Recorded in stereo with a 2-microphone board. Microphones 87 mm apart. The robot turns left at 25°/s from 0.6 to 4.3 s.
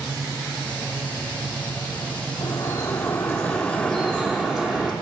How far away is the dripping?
About 3.5 m.